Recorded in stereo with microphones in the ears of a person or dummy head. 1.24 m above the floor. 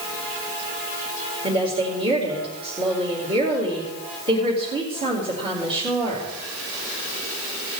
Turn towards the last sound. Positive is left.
turn(degrees=-30)  # may be behind; listen again after turning